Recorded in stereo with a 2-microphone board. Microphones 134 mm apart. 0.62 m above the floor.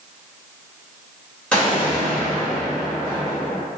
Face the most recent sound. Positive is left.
turn(degrees=10)  # may be behind; listen again after turning